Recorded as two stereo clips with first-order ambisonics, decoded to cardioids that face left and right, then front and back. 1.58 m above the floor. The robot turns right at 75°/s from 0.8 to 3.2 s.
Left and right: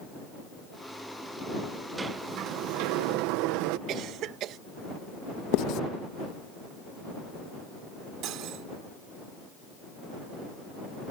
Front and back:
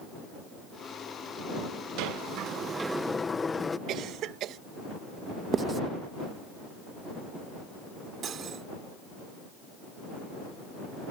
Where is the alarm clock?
No alarm clock in this recording.